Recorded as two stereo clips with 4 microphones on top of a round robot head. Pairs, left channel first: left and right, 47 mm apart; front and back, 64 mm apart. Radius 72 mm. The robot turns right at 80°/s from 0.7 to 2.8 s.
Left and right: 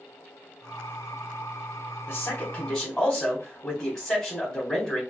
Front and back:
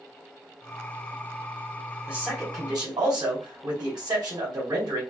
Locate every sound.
2.1 s a man speaking: 105° left, 3.5 m; by 5.0 s 165° left, 3.5 m